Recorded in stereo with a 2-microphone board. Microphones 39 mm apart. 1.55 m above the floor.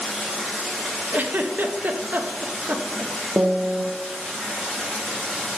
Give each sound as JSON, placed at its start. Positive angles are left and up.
{"t": 0.0, "sound": "running water", "side_deg": 10, "distance_m": 3.0}
{"t": 1.1, "sound": "a giggle", "side_deg": -50, "distance_m": 0.6}
{"t": 3.4, "sound": "a piano", "side_deg": -55, "distance_m": 0.6}